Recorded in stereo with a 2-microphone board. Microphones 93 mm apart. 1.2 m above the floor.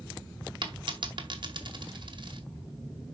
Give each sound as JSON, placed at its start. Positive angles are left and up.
{"t": 0.6, "sound": "a dropped coin", "side_deg": -60, "distance_m": 2.0}